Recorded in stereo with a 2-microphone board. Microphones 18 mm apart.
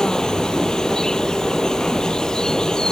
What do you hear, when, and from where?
0.0 s an insect: 40° left (ahead or behind)